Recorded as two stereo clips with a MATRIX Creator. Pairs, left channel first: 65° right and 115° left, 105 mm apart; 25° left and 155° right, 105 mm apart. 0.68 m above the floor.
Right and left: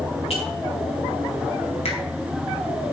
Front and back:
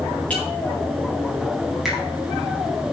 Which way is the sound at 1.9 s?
70° right.